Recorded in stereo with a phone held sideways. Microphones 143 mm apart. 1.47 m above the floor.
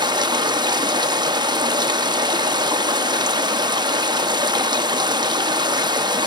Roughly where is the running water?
Right.